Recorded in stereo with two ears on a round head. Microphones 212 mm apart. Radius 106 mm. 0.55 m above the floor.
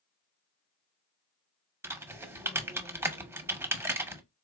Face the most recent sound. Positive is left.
turn(degrees=-10)  # may be behind; listen again after turning